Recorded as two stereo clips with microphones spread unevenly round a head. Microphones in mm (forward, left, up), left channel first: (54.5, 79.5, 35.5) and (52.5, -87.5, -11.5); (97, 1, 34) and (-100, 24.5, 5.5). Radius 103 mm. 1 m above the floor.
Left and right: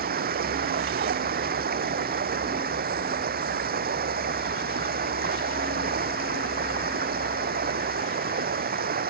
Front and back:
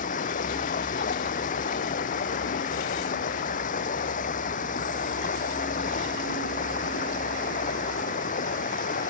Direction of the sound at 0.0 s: 60° right.